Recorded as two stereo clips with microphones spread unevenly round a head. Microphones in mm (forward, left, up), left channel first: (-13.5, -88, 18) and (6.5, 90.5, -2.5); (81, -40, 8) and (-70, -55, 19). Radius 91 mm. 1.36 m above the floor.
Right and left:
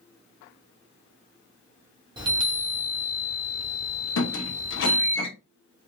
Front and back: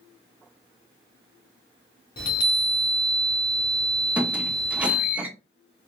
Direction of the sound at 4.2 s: 95° right.